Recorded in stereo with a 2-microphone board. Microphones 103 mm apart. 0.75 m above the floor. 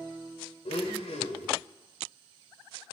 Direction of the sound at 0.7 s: 85° left.